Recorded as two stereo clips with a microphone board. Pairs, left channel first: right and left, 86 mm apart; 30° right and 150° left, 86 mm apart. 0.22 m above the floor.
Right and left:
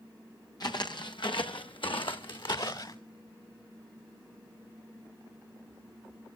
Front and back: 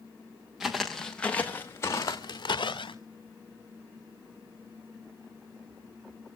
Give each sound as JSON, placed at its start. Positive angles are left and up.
{"t": 0.6, "sound": "footsteps", "azimuth_deg": -125, "distance_m": 1.8}